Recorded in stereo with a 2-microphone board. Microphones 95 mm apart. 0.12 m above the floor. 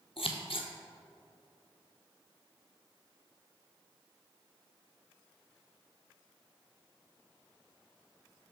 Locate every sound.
0.2 s scissors: 70° left (ahead or behind), 0.7 m